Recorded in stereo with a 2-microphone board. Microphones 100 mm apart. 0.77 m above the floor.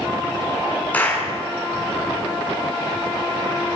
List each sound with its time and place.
0.9 s a clap: 15° left (ahead or behind), 7.5 m